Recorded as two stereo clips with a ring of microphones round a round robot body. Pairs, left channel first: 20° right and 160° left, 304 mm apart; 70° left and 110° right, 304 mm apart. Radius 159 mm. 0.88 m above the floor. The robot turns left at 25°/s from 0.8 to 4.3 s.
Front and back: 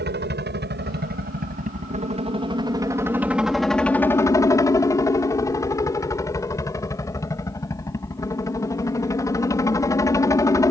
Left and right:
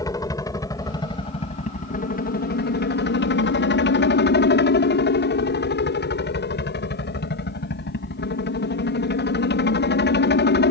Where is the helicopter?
135° left; by 10.7 s 50° left.